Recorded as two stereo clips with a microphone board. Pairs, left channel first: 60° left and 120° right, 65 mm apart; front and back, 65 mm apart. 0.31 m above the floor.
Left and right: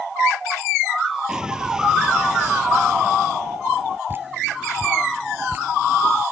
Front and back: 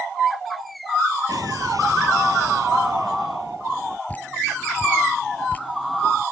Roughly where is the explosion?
Behind.